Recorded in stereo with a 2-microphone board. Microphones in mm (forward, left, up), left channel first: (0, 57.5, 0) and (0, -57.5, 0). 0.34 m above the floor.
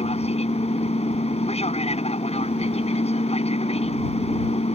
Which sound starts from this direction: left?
An aircraft, at 0.0 s.